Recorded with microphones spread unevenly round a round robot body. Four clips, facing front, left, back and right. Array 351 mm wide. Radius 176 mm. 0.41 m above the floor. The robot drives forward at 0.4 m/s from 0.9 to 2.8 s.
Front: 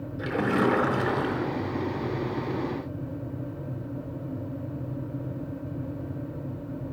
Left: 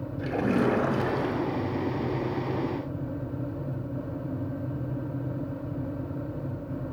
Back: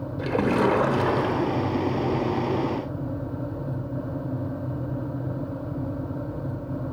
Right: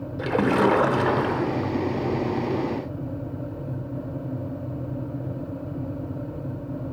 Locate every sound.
0.2 s a splash: 120° right, 1.1 m; by 1.7 s 135° right, 1.3 m